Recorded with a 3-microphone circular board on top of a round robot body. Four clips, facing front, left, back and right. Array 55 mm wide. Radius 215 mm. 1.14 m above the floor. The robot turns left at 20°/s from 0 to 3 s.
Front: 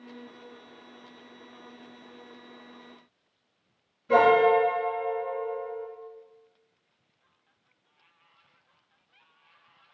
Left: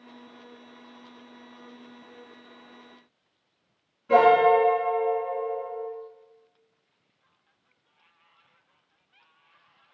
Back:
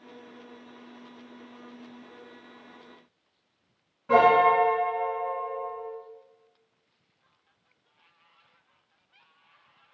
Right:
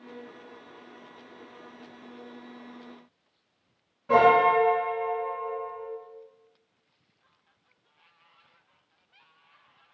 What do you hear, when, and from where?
4.1 s a piano: 150° right, 1.7 m